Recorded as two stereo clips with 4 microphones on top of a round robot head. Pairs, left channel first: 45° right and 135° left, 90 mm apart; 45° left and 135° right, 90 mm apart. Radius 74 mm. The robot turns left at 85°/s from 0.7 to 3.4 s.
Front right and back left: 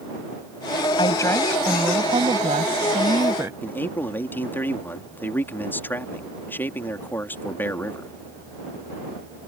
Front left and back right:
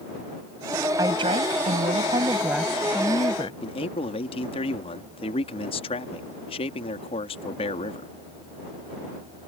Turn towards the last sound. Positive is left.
turn(degrees=25)